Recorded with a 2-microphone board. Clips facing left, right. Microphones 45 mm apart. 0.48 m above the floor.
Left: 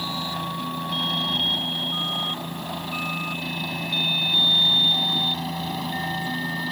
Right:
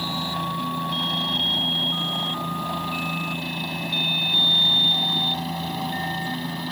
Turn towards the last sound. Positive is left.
turn(degrees=-5)  # may be behind; listen again after turning